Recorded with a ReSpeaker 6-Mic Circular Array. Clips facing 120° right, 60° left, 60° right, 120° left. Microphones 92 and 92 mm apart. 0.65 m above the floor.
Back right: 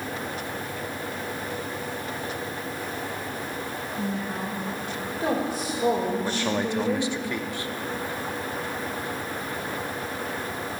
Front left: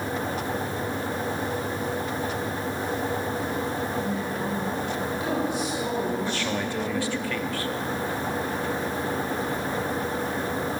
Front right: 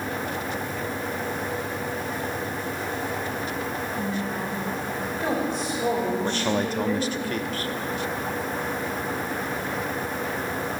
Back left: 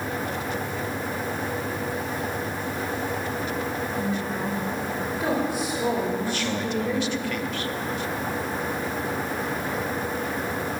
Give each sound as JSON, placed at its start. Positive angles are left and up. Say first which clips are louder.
{"t": 4.0, "sound": "a woman speaking", "louder": "front left 2 dB, back left 1 dB", "azimuth_deg": -160, "distance_m": 3.0}
{"t": 6.2, "sound": "a man speaking", "louder": "back right 2 dB, front right 2 dB", "azimuth_deg": -60, "distance_m": 0.7}